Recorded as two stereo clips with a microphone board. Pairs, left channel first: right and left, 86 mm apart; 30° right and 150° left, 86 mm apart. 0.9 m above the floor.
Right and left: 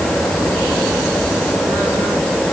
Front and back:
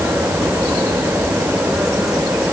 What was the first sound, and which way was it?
Only background noise.